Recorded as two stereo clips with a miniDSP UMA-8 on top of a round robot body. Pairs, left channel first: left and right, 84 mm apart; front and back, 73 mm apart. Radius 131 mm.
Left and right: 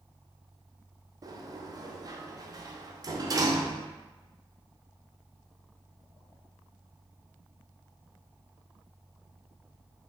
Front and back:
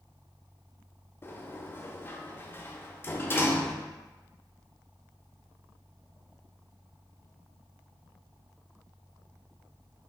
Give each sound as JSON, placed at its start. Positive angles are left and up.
{"t": 1.2, "sound": "a sliding door", "azimuth_deg": -55, "distance_m": 0.7}